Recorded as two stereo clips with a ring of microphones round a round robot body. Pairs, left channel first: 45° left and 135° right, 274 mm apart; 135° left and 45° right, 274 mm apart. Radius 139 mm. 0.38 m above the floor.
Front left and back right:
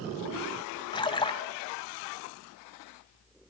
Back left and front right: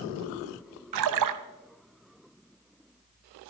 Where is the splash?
30° right, 0.9 m.